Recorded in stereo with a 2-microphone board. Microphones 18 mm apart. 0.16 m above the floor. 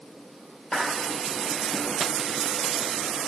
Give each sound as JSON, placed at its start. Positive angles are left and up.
{"t": 0.7, "sound": "a clap", "side_deg": 50, "distance_m": 3.5}